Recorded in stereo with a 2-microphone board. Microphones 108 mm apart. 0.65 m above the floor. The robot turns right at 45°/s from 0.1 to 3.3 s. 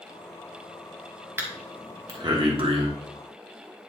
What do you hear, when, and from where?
1.4 s breathing: 20° right (ahead or behind), 1.4 m; by 2.9 s 55° right (ahead or behind), 1.4 m